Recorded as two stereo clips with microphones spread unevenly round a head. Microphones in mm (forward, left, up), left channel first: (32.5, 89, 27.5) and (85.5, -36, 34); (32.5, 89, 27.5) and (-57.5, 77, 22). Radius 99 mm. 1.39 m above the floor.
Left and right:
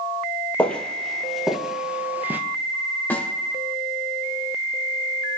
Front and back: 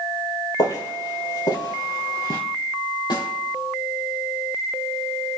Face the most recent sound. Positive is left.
turn(degrees=35)